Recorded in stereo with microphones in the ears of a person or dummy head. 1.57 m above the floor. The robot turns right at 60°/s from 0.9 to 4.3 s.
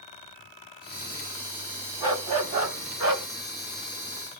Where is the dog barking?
155° right, 2.5 m; by 3.3 s 80° right, 2.5 m.